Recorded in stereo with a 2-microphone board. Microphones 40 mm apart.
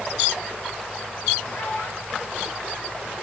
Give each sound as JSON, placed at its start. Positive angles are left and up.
{"t": 1.5, "sound": "a child speaking", "side_deg": 60, "distance_m": 10.0}